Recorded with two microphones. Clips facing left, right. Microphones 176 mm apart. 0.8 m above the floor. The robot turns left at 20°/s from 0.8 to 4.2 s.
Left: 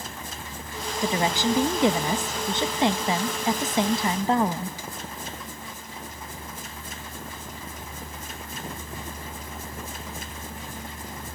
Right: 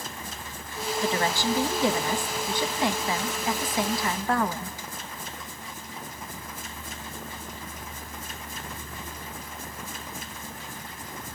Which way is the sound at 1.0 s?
15° left (ahead or behind).